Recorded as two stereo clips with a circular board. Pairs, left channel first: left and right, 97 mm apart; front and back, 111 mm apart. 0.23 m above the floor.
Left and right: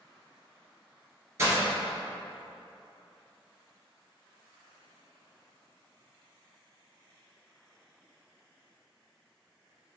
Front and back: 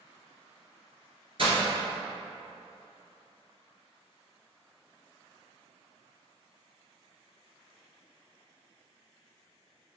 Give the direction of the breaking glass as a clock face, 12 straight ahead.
5 o'clock.